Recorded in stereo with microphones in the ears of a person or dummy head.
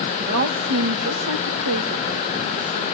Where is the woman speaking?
60° right (ahead or behind), 1.4 m; by 2.9 s 85° right, 3 m.